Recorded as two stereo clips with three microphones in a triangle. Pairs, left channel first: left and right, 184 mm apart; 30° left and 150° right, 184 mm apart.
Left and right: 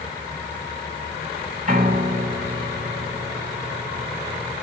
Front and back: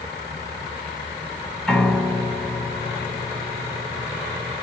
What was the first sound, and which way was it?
A piano, 55° right.